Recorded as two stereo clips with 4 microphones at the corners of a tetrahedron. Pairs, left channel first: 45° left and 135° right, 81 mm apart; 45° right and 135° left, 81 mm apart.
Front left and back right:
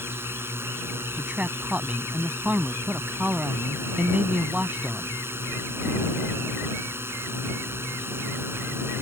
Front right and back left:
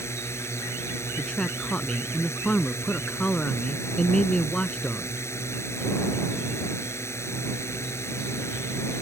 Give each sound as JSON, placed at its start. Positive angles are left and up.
{"t": 0.0, "sound": "a drone", "azimuth_deg": -85}
{"t": 1.2, "sound": "a man speaking", "azimuth_deg": -100}